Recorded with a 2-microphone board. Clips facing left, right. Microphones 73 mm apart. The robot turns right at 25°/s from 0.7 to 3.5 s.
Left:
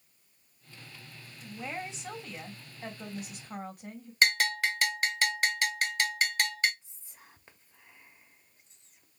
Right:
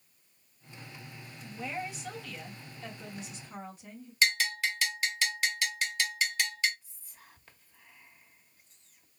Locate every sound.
1.4 s a woman speaking: 15° left, 2.5 m; by 4.1 s 65° left, 2.5 m
4.2 s a bell: 50° left (ahead or behind), 1.2 m
6.8 s whispering: 20° left (ahead or behind), 1.2 m